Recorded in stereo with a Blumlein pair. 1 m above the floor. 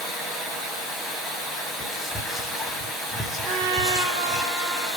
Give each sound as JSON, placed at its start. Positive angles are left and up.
{"t": 0.0, "sound": "running water", "azimuth_deg": 0, "distance_m": 0.9}
{"t": 1.8, "sound": "whispering", "azimuth_deg": 15, "distance_m": 0.5}
{"t": 3.4, "sound": "a trumpet", "azimuth_deg": -35, "distance_m": 0.8}